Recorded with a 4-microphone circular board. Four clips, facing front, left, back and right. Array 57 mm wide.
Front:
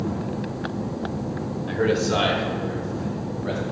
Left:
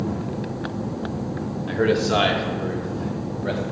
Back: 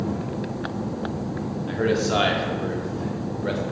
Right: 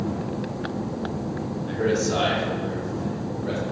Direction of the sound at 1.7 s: 85° left.